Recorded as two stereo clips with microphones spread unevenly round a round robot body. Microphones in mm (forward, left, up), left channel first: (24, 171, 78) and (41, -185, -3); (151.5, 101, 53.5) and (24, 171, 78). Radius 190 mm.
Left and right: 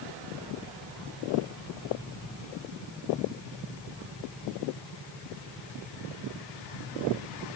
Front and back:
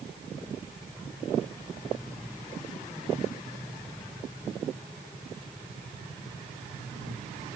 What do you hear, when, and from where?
Only background noise.